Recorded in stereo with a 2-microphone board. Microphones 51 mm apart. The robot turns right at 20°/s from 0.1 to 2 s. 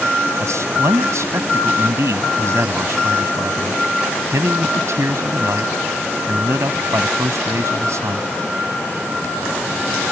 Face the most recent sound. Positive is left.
turn(degrees=-70)